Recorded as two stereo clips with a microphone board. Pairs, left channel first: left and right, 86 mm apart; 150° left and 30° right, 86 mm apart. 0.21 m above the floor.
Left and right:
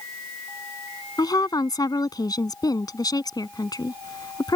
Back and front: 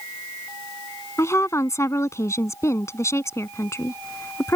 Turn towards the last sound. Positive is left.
turn(degrees=105)